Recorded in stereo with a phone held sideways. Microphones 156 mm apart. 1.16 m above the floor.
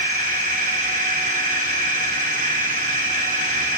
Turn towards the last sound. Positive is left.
turn(degrees=-55)  # may be behind; listen again after turning